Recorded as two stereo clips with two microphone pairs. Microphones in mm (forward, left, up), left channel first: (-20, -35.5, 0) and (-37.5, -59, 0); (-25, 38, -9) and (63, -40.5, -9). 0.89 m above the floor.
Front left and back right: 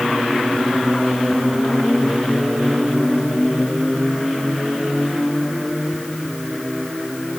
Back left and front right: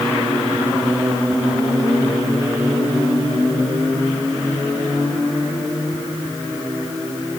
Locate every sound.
Only background noise.